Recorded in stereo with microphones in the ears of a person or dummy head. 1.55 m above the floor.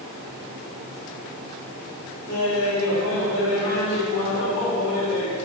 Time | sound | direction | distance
2.3 | laughter | 85° left | 3 m